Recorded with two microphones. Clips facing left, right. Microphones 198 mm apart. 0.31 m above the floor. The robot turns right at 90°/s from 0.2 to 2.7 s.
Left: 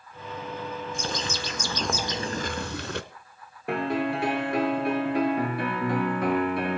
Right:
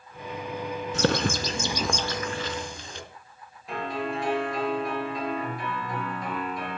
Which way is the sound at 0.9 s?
85° right.